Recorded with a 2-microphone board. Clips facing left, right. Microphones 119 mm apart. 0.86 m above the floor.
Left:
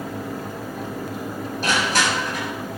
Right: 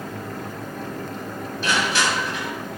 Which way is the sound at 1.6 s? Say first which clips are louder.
Left 1 dB; 40° left (ahead or behind).